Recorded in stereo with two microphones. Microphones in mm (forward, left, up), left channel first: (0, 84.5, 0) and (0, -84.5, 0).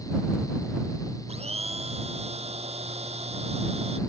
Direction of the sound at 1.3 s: 35° right (ahead or behind).